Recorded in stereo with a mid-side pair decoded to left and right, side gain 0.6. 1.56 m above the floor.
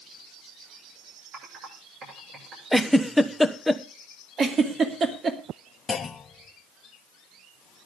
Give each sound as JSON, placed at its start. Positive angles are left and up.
{"t": 1.3, "sound": "typing on a keyboard", "azimuth_deg": -50, "distance_m": 7.5}
{"t": 2.7, "sound": "a giggle", "azimuth_deg": 0, "distance_m": 1.1}
{"t": 4.4, "sound": "a giggle", "azimuth_deg": -40, "distance_m": 2.5}
{"t": 5.9, "sound": "a clunk", "azimuth_deg": 30, "distance_m": 1.2}